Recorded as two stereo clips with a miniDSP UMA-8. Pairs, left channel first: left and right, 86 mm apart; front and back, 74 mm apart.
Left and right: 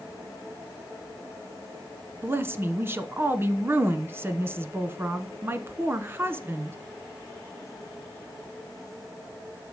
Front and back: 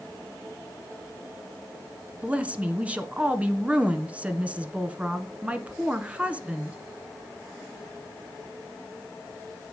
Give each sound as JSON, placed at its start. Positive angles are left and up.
{"t": 2.2, "sound": "a woman speaking", "azimuth_deg": -125, "distance_m": 1.2}